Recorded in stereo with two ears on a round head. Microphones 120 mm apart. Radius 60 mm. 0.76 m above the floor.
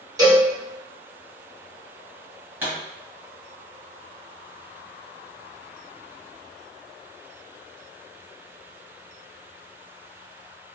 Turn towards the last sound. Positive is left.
turn(degrees=-15)  # may be behind; listen again after turning